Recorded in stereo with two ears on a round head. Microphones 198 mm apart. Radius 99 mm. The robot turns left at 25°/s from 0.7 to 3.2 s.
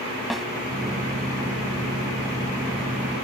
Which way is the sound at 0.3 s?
Centre (ahead or behind).